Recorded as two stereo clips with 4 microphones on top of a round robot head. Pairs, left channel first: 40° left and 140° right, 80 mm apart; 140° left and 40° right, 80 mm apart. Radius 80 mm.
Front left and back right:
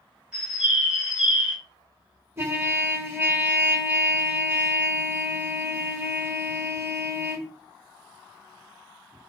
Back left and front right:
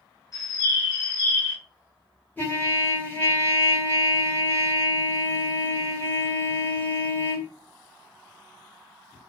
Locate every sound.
0.3 s a bird: 145° left, 1.6 m
2.4 s a trumpet: 170° right, 1.3 m